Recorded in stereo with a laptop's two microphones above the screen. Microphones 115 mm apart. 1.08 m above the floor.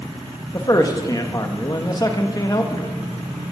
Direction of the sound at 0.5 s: 30° left (ahead or behind).